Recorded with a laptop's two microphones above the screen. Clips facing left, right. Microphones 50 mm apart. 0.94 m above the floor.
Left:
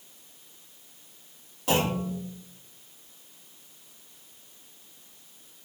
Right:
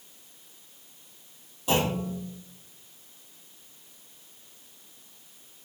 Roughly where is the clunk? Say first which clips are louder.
Even; left.